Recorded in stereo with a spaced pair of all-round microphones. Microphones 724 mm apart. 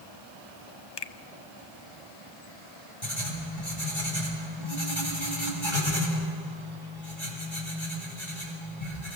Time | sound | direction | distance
1.0 | a finger snap | 40° left (ahead or behind) | 0.6 m
3.0 | writing | 40° left (ahead or behind) | 6.5 m